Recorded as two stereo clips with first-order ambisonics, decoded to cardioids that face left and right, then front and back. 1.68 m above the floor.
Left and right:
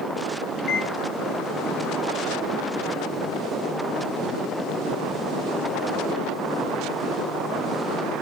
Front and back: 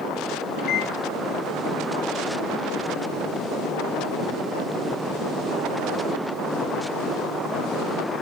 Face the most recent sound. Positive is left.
turn(degrees=25)